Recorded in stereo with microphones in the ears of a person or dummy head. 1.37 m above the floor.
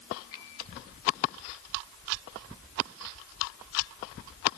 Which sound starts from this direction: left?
A finger snap, at 0.3 s.